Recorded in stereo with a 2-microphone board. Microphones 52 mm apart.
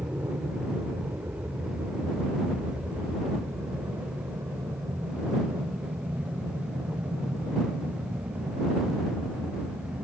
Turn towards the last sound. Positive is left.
turn(degrees=-75)  # may be behind; listen again after turning